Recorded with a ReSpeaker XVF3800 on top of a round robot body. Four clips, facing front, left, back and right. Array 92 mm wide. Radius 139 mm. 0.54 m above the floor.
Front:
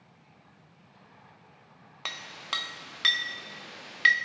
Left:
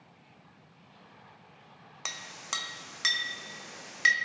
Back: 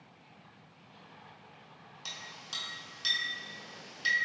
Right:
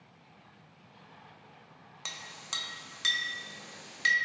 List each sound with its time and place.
2.0 s a clink: 25° left, 0.5 m